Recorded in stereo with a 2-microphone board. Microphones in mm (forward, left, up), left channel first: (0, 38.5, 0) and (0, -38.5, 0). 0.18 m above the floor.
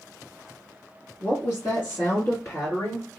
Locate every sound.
1.2 s a woman speaking: 25° left (ahead or behind), 1.6 m; by 3.1 s 35° left (ahead or behind), 2.5 m